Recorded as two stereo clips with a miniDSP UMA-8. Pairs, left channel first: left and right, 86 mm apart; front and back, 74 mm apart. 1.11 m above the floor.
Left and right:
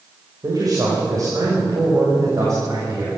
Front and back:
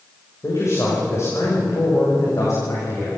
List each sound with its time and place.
0.4 s a man speaking: 50° right, 6 m; by 3.1 s 40° right, 7.5 m